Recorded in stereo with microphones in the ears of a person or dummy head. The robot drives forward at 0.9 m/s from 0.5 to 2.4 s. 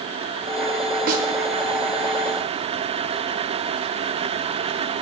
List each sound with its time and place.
1.1 s a snare drum: 50° right (ahead or behind), 2.5 m